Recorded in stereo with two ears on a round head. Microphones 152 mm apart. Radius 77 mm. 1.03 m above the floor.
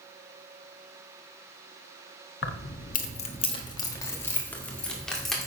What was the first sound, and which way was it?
Keys jangling, 70° left (ahead or behind).